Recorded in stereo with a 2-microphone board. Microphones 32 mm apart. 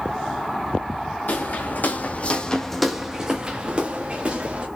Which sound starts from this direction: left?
Footsteps, at 1.3 s.